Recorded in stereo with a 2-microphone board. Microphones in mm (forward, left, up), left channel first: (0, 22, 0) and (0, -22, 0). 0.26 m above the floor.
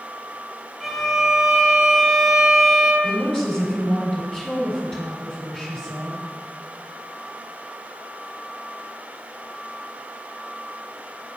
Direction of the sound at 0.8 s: 5° right (ahead or behind).